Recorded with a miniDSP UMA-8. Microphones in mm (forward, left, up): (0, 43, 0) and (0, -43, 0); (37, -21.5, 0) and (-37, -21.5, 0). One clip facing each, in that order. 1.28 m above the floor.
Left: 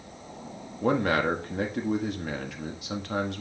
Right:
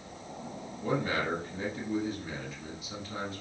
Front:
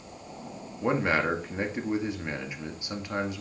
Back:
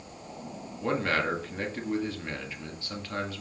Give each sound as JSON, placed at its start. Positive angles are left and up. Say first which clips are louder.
{"t": 0.8, "sound": "a man speaking", "louder": "left 6 dB, front 2 dB", "azimuth_deg": 70, "distance_m": 2.0}